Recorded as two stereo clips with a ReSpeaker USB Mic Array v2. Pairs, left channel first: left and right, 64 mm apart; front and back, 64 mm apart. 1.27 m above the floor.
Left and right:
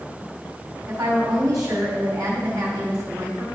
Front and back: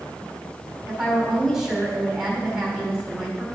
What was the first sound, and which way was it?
A woman speaking, 95° right.